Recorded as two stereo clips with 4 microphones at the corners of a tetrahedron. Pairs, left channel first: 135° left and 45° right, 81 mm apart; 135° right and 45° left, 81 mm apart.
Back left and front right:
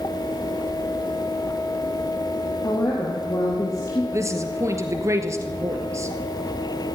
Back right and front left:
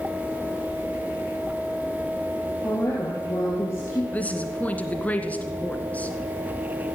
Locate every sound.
2.6 s a woman speaking: 175° left, 4.5 m
4.1 s a woman speaking: 70° right, 1.9 m